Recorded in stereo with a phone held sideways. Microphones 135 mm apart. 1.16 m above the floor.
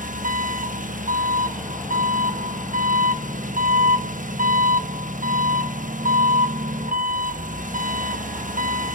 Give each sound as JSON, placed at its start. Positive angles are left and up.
{"t": 0.0, "sound": "an engine running", "side_deg": -75, "distance_m": 1.0}